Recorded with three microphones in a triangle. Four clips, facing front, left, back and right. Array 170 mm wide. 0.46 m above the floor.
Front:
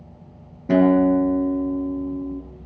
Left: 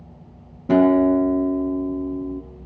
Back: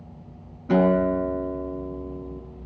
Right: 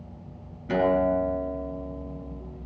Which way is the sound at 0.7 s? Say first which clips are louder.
Left 7 dB, front 4 dB; 55° left.